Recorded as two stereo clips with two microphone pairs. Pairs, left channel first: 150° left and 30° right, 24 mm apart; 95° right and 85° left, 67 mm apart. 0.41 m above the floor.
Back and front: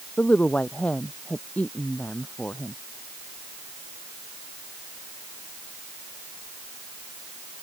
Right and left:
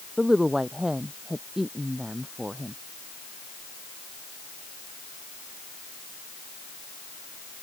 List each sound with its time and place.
0.2 s a woman speaking: 165° left